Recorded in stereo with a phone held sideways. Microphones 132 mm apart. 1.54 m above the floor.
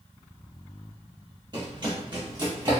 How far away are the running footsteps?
About 2.0 m.